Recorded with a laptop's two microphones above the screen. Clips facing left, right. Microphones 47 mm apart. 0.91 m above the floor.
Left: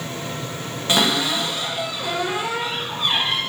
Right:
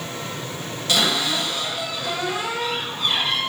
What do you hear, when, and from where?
0.9 s a cupboard door: 25° left (ahead or behind), 0.6 m